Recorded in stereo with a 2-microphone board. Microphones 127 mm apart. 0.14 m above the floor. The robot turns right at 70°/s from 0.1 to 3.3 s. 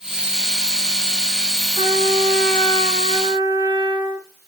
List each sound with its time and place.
1.8 s a trumpet: 135° right, 7 m; by 4.3 s 30° right, 7 m